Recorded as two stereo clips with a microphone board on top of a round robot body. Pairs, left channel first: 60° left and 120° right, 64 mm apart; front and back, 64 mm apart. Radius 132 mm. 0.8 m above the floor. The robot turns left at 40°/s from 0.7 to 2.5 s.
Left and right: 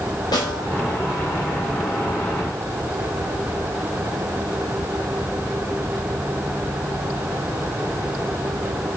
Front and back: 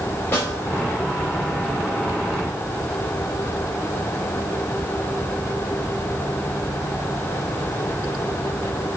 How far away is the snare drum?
About 3.5 m.